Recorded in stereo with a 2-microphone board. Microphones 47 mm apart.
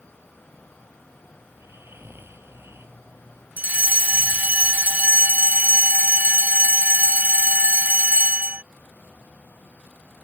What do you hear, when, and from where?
1.5 s snoring: 65° right (ahead or behind)
3.6 s a fire alarm: 40° right (ahead or behind)